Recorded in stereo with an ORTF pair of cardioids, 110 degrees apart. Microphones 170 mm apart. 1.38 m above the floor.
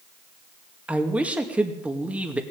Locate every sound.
0.9 s a man speaking: 10° right, 2 m